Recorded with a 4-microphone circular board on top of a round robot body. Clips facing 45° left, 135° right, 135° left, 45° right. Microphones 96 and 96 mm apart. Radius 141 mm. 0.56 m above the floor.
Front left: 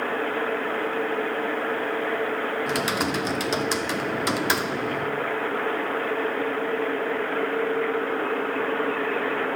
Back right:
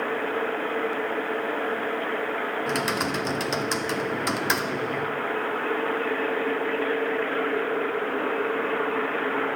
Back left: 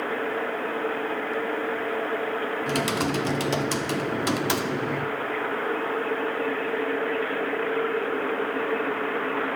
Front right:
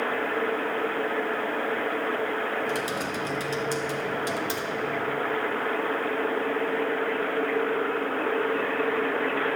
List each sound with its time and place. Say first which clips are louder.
2.7 s typing on a keyboard: front left 1 dB, back left 4 dB; 135° left, 0.8 m